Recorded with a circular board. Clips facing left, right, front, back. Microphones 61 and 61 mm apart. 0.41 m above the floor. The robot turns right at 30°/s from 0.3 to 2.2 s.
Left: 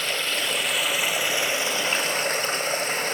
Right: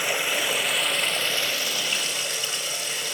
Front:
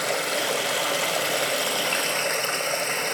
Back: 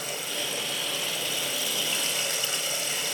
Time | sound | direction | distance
0.0 | running water | 15° right | 1.1 m